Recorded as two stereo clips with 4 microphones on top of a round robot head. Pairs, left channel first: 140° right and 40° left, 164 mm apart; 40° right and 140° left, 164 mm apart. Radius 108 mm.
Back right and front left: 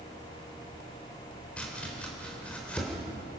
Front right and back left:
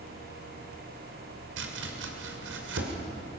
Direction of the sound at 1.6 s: 135° left.